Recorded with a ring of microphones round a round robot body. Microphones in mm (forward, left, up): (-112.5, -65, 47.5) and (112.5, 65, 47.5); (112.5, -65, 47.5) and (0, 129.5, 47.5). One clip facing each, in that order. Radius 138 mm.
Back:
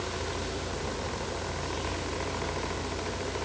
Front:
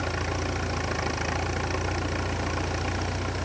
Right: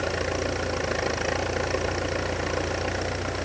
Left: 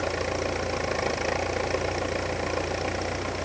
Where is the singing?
I don't hear singing.